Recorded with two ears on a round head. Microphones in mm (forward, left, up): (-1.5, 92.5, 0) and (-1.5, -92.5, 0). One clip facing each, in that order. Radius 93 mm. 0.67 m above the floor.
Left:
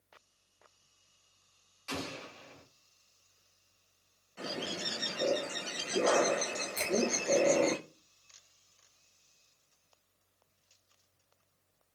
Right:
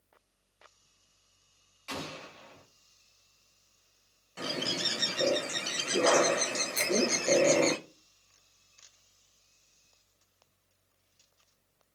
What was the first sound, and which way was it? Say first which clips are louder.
An explosion: left 1 dB; 10° left (ahead or behind).